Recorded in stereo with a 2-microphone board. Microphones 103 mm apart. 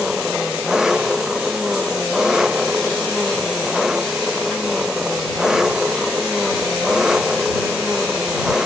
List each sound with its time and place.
0.0 s an engine running: 5° right (ahead or behind)